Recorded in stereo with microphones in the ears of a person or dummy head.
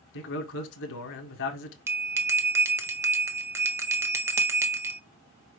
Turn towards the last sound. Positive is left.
turn(degrees=-15)  # may be behind; listen again after turning